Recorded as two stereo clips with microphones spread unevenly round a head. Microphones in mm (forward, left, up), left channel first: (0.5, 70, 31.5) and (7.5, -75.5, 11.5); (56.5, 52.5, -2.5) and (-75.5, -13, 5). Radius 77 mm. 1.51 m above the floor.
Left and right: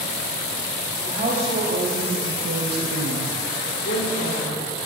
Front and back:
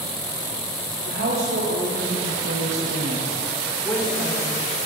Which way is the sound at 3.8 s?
100° left.